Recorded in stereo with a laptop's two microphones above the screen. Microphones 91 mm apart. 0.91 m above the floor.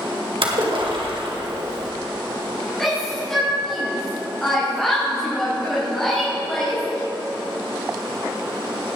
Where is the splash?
80° right, 2.5 m.